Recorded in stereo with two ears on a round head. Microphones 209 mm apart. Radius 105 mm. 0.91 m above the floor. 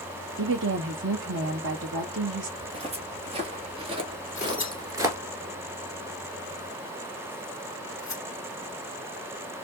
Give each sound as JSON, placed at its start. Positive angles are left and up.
{"t": 0.4, "sound": "a woman speaking", "side_deg": -55, "distance_m": 0.7}
{"t": 2.6, "sound": "footsteps", "side_deg": -25, "distance_m": 1.5}
{"t": 4.3, "sound": "tearing paper", "side_deg": 15, "distance_m": 2.0}